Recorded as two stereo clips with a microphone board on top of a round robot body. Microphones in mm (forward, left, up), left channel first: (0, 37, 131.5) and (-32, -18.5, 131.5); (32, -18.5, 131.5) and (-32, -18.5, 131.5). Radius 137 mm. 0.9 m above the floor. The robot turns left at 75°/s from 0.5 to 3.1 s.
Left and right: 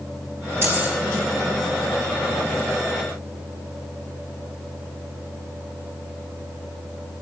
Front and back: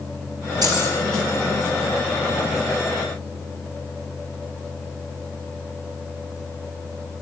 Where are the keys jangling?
175° right, 6 m; by 0.9 s 160° left, 6 m.